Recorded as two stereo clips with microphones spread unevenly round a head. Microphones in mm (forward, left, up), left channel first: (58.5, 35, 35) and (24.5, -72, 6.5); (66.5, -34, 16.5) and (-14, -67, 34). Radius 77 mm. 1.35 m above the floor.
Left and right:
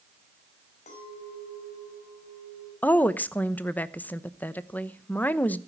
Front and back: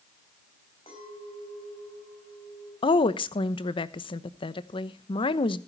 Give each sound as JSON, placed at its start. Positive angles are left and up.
{"t": 0.9, "sound": "a clink", "azimuth_deg": 65, "distance_m": 5.5}
{"t": 2.8, "sound": "a woman speaking", "azimuth_deg": 0, "distance_m": 0.9}